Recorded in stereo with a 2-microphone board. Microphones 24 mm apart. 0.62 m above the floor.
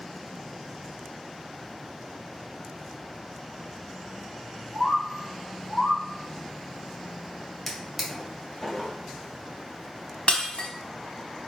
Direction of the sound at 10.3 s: 55° left (ahead or behind).